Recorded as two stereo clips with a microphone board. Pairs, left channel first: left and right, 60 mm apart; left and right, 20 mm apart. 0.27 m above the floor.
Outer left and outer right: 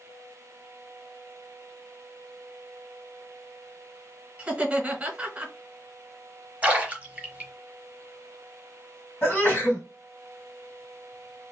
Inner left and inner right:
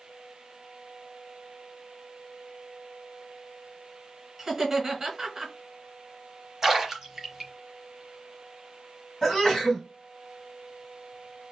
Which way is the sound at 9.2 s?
35° left (ahead or behind).